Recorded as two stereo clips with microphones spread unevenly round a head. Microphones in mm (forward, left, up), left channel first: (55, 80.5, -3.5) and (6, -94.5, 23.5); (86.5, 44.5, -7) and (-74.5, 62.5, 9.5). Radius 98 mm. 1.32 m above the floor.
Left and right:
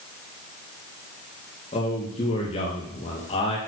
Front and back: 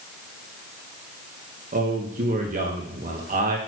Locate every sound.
1.7 s a man speaking: 135° left, 2 m